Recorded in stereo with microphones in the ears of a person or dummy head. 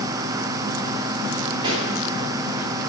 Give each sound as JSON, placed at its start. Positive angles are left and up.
{"t": 1.6, "sound": "a pop", "side_deg": -30, "distance_m": 2.0}